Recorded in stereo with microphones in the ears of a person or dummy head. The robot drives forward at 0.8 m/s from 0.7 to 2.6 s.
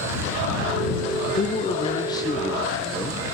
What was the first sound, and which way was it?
A man speaking, 45° left (ahead or behind).